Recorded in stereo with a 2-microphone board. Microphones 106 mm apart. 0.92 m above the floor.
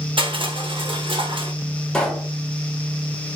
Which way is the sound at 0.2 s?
55° right (ahead or behind).